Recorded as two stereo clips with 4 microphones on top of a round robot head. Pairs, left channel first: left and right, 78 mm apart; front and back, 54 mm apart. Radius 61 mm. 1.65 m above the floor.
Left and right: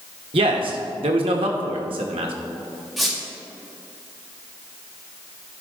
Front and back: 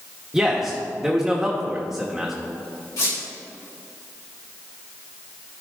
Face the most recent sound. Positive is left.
turn(degrees=0)